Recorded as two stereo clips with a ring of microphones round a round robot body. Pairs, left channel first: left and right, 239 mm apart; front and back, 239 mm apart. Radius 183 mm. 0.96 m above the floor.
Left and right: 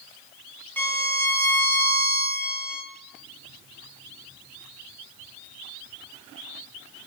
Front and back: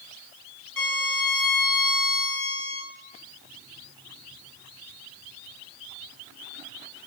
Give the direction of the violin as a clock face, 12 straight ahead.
12 o'clock.